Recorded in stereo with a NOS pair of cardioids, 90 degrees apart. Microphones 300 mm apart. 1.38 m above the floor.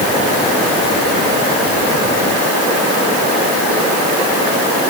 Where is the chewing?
I don't hear chewing.